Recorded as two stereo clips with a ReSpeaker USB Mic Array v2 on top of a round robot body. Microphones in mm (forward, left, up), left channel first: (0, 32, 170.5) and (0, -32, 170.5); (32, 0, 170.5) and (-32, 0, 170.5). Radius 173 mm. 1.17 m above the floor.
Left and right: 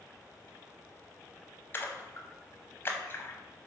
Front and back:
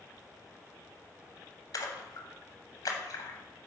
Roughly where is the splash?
Ahead left.